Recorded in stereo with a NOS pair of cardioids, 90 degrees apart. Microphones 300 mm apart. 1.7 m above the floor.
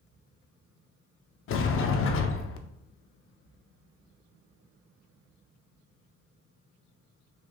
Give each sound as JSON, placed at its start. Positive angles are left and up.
{"t": 1.5, "sound": "a sliding door", "azimuth_deg": 45, "distance_m": 0.5}